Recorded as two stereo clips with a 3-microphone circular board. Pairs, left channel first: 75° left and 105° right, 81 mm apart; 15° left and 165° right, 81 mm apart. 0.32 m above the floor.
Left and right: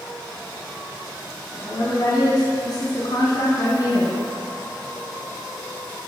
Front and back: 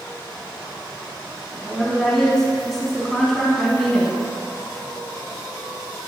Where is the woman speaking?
100° left, 2.5 m.